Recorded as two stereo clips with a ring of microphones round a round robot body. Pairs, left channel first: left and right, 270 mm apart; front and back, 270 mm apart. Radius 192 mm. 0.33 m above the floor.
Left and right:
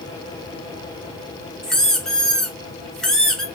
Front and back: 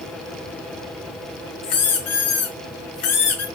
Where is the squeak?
Straight ahead, 1.5 m.